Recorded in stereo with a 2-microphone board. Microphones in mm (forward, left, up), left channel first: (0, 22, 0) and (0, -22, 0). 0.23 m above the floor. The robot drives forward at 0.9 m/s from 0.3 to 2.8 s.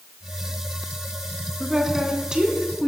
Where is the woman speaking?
10° right (ahead or behind), 2 m; by 2.9 s 20° right (ahead or behind), 1.4 m.